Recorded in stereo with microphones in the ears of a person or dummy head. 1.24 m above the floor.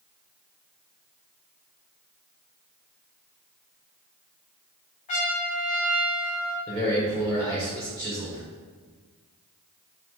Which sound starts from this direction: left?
A trumpet, at 5.1 s.